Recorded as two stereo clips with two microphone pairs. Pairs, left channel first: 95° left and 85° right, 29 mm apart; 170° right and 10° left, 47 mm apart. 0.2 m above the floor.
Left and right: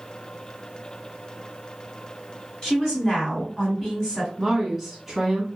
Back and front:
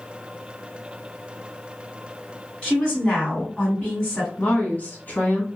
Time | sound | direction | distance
2.6 | a woman speaking | 130° left | 1.9 m
4.4 | a woman speaking | 165° right | 1.3 m